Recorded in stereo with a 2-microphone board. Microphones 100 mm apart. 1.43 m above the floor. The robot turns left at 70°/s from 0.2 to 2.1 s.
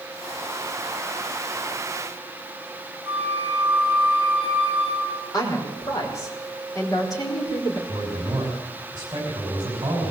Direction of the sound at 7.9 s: 40° right (ahead or behind).